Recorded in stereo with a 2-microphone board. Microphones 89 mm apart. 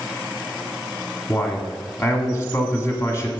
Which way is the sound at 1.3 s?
30° left (ahead or behind).